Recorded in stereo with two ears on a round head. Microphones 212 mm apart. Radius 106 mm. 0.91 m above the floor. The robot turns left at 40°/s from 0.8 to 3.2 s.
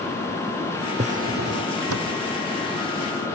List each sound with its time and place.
1.0 s a drawer: 30° right; by 2.2 s 75° right